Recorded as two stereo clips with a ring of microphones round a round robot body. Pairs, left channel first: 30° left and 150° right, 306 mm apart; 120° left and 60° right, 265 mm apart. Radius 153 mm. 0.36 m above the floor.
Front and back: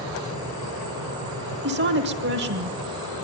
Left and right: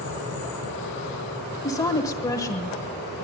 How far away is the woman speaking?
About 1.0 m.